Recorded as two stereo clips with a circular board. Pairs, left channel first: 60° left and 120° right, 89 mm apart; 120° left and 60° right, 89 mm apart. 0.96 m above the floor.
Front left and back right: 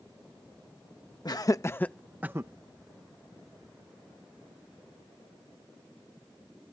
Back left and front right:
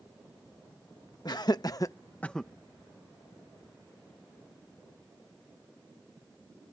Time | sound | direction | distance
1.2 | laughter | 90° left | ?